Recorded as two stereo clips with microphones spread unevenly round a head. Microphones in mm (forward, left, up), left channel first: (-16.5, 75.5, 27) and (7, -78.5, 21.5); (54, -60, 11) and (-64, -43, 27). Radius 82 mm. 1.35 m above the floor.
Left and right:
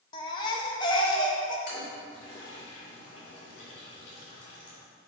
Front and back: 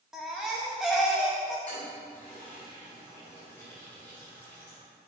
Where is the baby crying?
105° left, 0.6 m.